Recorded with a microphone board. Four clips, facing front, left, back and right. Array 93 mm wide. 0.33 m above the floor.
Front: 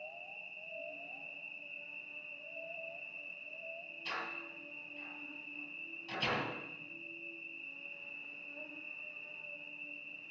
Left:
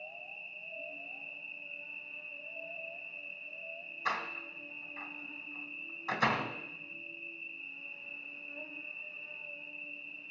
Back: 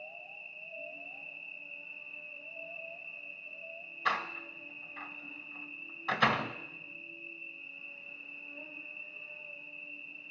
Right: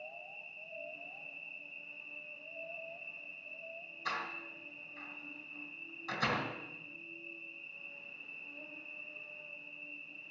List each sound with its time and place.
0.0 s an insect: 70° left, 4 m
4.0 s a door slam: 155° left, 1.7 m